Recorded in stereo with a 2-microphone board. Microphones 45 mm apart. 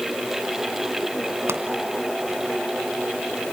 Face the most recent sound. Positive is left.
turn(degrees=-80)